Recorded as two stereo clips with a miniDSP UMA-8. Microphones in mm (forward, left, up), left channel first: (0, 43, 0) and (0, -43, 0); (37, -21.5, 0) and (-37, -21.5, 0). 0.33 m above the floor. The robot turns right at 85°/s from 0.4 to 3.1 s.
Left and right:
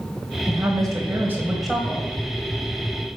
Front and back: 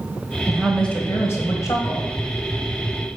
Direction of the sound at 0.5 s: 105° right.